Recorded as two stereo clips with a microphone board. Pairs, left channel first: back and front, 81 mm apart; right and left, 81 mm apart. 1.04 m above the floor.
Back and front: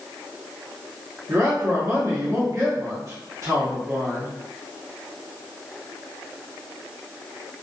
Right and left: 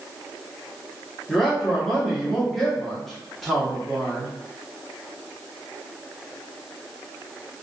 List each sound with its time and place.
1.3 s a man speaking: 5° right, 0.8 m